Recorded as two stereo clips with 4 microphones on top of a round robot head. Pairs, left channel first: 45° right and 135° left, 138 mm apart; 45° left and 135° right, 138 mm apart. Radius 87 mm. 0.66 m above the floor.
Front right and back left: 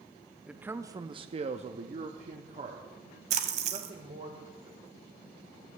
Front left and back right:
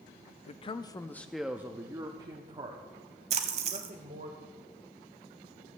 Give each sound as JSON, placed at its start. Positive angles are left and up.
{"t": 0.5, "sound": "a man speaking", "azimuth_deg": 55, "distance_m": 0.7}
{"t": 3.3, "sound": "a splash", "azimuth_deg": 180, "distance_m": 0.8}